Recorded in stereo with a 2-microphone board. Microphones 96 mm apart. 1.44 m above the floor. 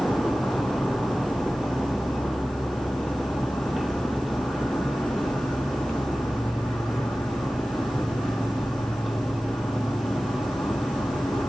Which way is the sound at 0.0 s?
5° left (ahead or behind).